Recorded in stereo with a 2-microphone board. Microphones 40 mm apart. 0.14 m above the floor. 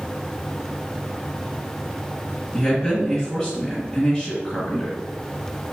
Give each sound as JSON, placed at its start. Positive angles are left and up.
{"t": 2.5, "sound": "a man speaking", "side_deg": 10, "distance_m": 1.5}